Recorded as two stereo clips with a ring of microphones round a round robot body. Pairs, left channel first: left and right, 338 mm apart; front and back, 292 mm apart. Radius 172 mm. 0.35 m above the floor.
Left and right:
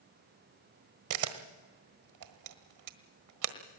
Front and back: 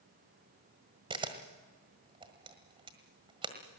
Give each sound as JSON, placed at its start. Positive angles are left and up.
{"t": 1.1, "sound": "a camera shutter", "azimuth_deg": -110, "distance_m": 1.5}